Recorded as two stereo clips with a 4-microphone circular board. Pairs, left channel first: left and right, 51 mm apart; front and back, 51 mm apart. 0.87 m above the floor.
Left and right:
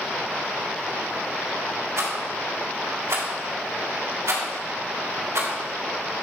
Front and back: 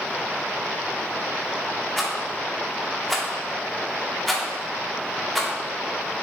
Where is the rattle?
85° right, 1.9 m.